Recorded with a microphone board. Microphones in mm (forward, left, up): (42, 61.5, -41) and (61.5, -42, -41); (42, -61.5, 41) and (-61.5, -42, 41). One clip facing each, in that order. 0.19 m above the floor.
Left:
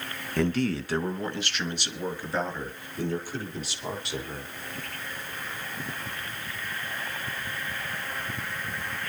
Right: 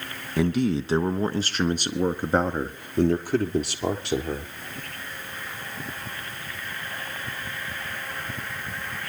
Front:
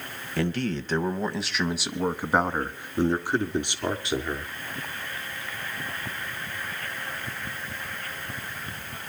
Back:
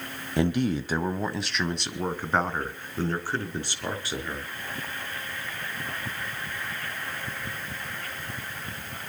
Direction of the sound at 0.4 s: 145° right.